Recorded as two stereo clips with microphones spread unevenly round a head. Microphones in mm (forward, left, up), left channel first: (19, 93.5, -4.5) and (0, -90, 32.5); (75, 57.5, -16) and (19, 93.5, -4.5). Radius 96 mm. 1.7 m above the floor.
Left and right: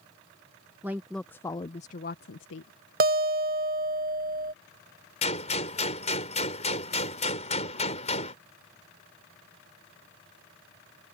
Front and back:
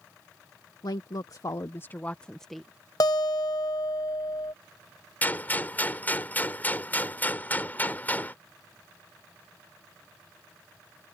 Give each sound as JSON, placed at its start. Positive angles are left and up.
{"t": 0.8, "sound": "a woman speaking", "azimuth_deg": -20}
{"t": 3.0, "sound": "a guitar", "azimuth_deg": -75}
{"t": 5.2, "sound": "a gunshot", "azimuth_deg": 30}